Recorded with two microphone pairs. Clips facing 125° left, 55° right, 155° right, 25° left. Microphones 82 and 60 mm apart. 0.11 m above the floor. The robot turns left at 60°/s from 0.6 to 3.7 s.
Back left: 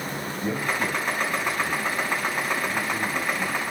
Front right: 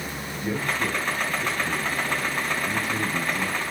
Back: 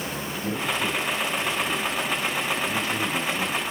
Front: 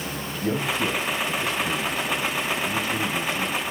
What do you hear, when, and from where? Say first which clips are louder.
0.4 s a man speaking: even, front 3 dB; 65° left, 5 m; by 3.6 s 115° right, 5 m